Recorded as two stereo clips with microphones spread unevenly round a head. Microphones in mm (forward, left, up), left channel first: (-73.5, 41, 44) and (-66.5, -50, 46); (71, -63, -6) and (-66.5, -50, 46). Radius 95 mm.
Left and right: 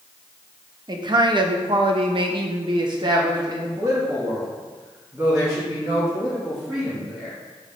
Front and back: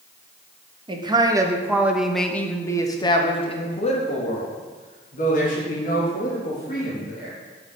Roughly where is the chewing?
I don't hear chewing.